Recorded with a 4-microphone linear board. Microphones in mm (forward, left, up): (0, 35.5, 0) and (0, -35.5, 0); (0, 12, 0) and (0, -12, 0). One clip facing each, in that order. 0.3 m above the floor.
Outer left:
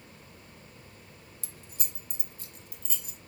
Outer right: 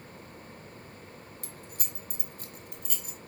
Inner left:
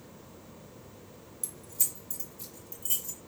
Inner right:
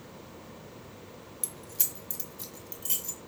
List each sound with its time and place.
1.4 s keys jangling: 50° right (ahead or behind), 1.0 m; by 3.2 s 55° right (ahead or behind), 1.9 m